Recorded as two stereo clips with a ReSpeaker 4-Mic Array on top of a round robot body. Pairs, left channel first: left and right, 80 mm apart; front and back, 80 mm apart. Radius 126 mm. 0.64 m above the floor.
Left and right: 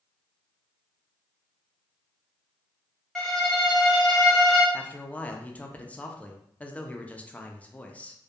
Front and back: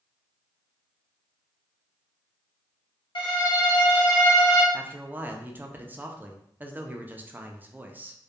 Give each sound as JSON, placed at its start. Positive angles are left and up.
{"t": 3.1, "sound": "a violin", "azimuth_deg": 5, "distance_m": 0.8}
{"t": 4.7, "sound": "a man speaking", "azimuth_deg": 145, "distance_m": 0.5}